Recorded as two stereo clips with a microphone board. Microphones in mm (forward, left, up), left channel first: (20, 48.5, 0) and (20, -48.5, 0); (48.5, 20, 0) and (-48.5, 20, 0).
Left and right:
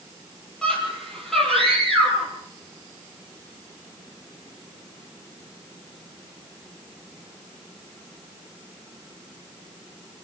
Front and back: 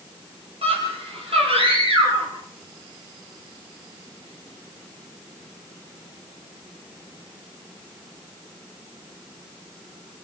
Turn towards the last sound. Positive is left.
turn(degrees=180)